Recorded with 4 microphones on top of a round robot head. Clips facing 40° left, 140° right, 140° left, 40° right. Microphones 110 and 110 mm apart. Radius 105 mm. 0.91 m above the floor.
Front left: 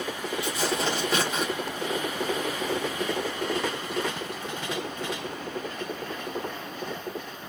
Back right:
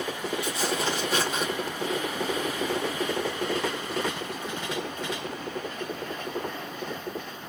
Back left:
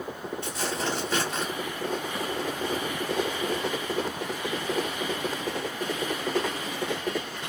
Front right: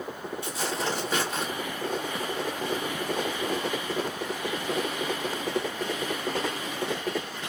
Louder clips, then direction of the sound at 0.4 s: Front left 2 dB, even; 35° left.